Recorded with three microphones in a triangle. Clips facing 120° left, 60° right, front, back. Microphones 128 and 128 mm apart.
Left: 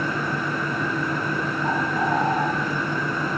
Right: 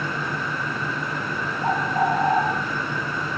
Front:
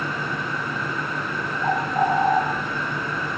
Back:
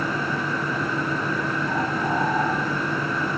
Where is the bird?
20° right, 9 m.